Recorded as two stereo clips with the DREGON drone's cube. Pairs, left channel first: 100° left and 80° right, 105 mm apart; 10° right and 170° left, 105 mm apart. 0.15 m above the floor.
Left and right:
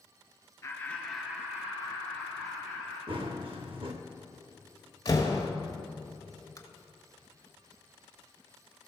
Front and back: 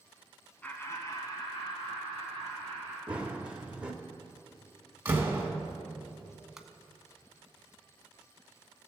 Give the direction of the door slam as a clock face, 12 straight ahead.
8 o'clock.